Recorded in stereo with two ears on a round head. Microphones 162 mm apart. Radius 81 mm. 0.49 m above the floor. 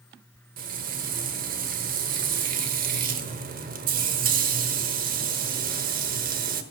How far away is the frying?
About 1.1 m.